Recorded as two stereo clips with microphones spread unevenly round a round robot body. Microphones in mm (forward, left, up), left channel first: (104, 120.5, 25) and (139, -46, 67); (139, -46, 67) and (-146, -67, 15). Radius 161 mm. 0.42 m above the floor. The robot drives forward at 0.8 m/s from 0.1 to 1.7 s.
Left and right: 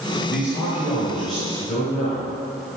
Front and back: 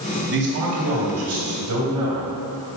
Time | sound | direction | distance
0.3 | a man speaking | 175° right | 1.7 m